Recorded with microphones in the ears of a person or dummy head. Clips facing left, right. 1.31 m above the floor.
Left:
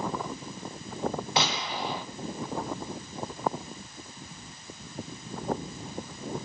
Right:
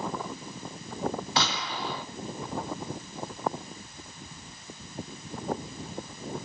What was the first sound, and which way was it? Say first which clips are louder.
A gunshot: left 1 dB; 25° left (ahead or behind).